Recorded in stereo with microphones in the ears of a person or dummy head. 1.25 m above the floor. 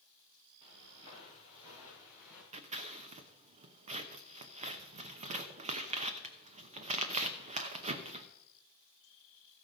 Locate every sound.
0.6 s footsteps: 40° right (ahead or behind), 6 m; by 2.4 s 10° right (ahead or behind), 6 m
2.5 s scissors: 40° right (ahead or behind), 0.9 m